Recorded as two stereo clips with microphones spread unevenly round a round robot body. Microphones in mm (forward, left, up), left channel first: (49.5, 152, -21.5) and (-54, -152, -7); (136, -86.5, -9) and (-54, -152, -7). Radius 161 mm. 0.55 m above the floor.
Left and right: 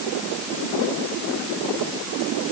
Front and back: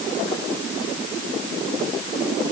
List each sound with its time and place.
Only background noise.